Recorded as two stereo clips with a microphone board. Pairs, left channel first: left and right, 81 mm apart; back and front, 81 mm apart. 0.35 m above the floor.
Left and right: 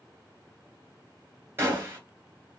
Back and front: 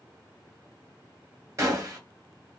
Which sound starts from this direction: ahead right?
A gunshot, at 1.6 s.